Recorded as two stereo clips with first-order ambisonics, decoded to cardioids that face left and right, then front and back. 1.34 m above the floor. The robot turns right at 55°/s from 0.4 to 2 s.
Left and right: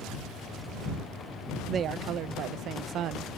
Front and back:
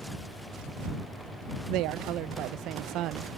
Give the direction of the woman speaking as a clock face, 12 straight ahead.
5 o'clock.